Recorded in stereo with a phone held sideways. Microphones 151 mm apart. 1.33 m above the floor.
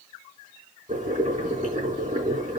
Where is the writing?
No writing in this recording.